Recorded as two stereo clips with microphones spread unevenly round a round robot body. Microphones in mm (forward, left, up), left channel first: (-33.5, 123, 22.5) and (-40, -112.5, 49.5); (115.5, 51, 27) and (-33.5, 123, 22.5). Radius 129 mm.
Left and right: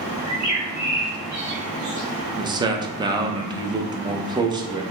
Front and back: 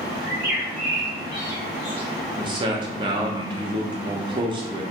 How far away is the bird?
About 1.7 m.